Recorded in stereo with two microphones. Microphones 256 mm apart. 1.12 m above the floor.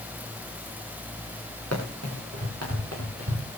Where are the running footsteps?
80° right, 8 m; by 3.5 s 75° right (ahead or behind), 8.5 m.